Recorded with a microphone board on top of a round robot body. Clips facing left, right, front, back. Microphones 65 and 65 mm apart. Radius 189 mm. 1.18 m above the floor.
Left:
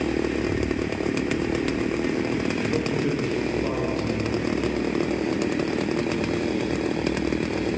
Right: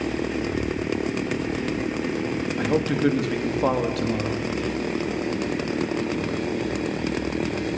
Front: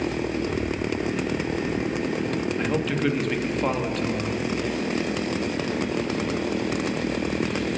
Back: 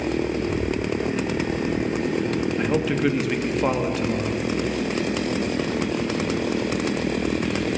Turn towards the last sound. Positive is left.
turn(degrees=-95)